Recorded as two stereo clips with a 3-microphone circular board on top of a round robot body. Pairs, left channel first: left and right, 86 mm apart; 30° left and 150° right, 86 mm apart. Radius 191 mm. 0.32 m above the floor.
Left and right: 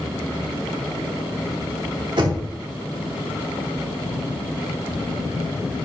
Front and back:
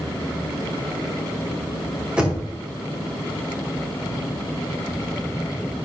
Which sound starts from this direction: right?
Knocking, at 2.2 s.